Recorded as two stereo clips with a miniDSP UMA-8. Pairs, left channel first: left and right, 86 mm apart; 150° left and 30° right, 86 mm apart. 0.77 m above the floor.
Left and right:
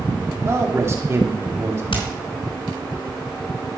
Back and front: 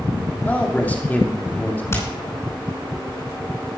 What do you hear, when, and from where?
0.5 s a man speaking: 145° right, 2 m
1.9 s hammering: 90° left, 4.5 m